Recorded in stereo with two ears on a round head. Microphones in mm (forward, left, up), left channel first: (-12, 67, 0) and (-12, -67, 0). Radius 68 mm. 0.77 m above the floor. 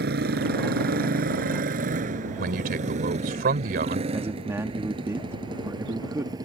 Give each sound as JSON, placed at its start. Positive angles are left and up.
{"t": 0.0, "sound": "a motorcycle", "side_deg": -80}
{"t": 2.4, "sound": "a man speaking", "side_deg": -70}
{"t": 4.1, "sound": "a man speaking", "side_deg": -20}